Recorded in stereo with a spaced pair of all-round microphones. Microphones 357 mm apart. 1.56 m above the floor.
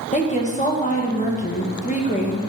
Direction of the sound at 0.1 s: 20° left (ahead or behind).